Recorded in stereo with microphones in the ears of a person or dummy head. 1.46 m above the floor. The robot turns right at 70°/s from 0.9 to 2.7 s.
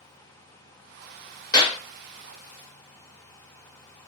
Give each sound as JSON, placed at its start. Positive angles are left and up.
{"t": 1.5, "sound": "a clap", "side_deg": 15, "distance_m": 0.9}